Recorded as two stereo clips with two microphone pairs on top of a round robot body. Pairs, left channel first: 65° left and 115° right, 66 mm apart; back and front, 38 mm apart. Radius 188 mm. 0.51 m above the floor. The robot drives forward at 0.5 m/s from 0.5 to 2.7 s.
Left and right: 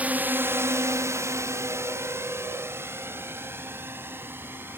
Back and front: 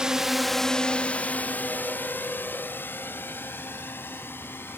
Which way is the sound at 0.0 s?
50° right.